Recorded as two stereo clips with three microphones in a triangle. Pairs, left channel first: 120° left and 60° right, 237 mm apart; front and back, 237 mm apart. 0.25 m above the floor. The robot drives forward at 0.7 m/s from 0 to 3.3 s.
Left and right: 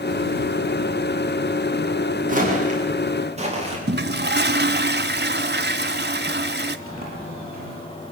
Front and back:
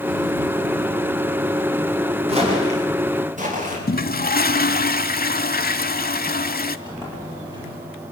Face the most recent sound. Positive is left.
turn(degrees=-110)